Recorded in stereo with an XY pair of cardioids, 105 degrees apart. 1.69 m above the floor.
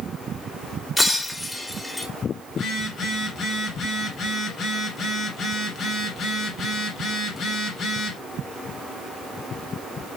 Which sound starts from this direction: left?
A phone buzzing, at 2.5 s.